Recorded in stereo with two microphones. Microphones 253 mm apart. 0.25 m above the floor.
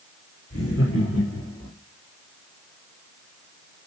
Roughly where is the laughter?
Left.